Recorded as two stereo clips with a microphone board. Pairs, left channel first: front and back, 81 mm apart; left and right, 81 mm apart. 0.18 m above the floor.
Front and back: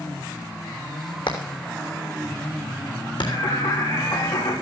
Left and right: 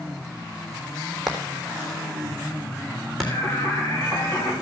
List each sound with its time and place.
1.3 s hammering: straight ahead, 3.5 m
3.2 s singing: 30° left, 6 m